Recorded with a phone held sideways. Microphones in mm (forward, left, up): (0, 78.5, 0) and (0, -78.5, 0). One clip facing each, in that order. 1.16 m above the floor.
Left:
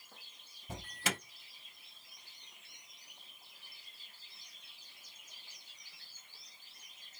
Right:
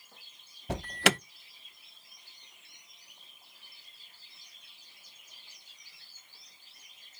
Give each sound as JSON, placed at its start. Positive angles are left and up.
{"t": 0.7, "sound": "an alarm", "side_deg": -80, "distance_m": 0.5}